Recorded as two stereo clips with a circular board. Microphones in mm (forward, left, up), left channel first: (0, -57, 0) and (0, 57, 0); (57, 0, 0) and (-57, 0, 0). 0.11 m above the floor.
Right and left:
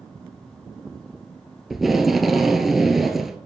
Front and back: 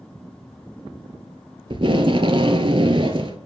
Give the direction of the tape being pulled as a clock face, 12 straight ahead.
6 o'clock.